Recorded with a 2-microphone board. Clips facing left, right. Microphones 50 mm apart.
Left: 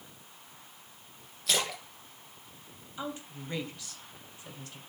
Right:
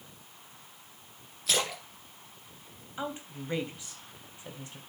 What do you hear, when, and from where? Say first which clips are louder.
1.5 s a splash: right 1 dB; centre (ahead or behind), 3 m
3.0 s a woman speaking: right 2 dB; 25° right (ahead or behind), 2.5 m